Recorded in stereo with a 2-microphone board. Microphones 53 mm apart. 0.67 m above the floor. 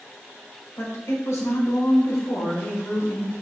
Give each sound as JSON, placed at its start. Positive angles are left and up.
{"t": 0.8, "sound": "a woman speaking", "side_deg": 75, "distance_m": 3.0}